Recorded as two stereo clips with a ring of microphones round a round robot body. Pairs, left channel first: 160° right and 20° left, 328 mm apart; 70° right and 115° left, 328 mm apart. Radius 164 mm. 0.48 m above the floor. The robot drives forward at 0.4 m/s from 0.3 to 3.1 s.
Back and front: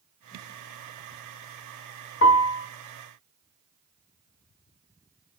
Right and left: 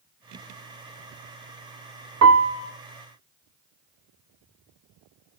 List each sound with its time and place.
2.2 s a piano: 155° left, 0.5 m; by 2.7 s 160° left, 0.7 m